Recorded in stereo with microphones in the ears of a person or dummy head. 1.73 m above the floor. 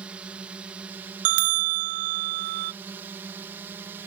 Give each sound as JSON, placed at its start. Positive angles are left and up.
{"t": 0.0, "sound": "a drone", "side_deg": -10}
{"t": 1.2, "sound": "a bell", "side_deg": -45}